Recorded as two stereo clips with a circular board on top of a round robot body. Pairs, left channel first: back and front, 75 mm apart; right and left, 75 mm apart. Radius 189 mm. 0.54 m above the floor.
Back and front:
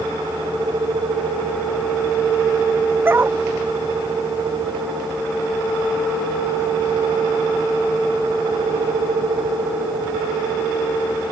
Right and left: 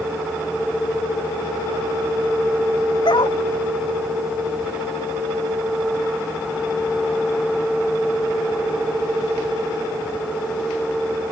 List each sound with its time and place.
3.0 s a dog barking: 60° right